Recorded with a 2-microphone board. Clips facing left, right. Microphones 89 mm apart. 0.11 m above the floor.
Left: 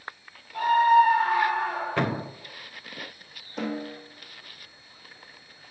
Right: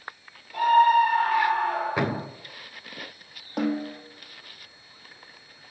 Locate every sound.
0.5 s a scream: 55° right (ahead or behind), 2.5 m; by 2.2 s 60° right (ahead or behind), 4 m
2.0 s a thud: 10° right (ahead or behind), 2.5 m
3.6 s a snare drum: 70° right (ahead or behind), 3 m